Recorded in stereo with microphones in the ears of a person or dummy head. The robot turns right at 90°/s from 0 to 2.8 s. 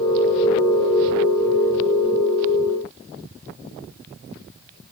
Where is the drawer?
No drawer in this recording.